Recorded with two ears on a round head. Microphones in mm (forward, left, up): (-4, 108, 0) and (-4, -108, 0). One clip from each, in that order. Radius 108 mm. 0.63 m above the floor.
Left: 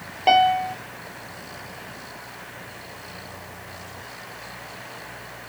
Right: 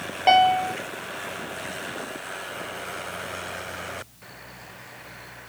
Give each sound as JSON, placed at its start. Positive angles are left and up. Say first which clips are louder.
{"t": 0.3, "sound": "a piano", "louder": "even", "side_deg": -15}